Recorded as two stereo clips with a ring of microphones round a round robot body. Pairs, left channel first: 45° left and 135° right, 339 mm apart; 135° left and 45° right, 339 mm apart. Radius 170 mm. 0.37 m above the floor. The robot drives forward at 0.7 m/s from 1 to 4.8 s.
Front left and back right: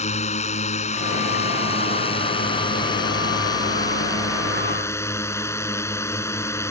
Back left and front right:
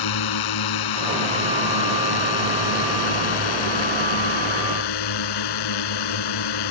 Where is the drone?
115° left; by 6.7 s 125° left.